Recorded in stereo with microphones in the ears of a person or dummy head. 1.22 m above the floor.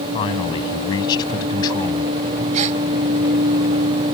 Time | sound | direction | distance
0.1 | a man speaking | 25° left (ahead or behind) | ?
2.5 | a gasp | 40° right (ahead or behind) | ?